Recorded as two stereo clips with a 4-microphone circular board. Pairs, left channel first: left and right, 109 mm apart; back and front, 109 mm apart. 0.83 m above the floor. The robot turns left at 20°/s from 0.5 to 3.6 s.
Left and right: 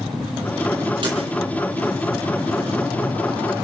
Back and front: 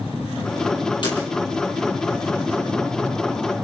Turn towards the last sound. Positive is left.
turn(degrees=175)